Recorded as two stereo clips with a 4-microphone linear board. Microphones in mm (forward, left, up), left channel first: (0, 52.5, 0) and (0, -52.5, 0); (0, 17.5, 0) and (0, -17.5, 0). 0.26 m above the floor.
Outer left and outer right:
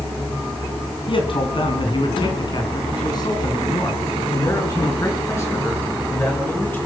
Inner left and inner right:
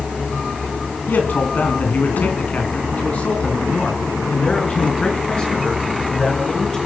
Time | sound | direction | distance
1.1 | a man speaking | 55° left (ahead or behind) | 2.5 m